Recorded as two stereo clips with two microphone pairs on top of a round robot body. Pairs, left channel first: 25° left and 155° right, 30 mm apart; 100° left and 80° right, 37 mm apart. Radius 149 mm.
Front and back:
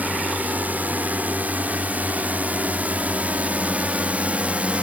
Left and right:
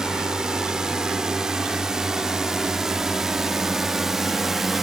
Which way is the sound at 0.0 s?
150° right.